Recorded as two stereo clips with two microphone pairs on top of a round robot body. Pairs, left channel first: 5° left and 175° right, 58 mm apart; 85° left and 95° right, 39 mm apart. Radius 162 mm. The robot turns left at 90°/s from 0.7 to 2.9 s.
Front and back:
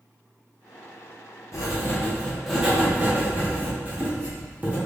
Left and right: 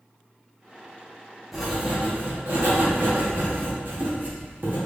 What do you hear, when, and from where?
1.5 s writing: straight ahead, 1.6 m; by 4.8 s 125° right, 1.6 m